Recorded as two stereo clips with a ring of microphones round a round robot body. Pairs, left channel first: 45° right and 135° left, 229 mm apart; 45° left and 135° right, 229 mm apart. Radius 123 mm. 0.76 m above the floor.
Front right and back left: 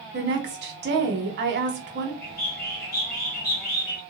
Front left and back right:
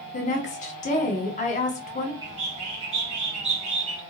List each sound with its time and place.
0.1 s a woman speaking: 100° left, 0.9 m
2.2 s a bird: 80° right, 1.5 m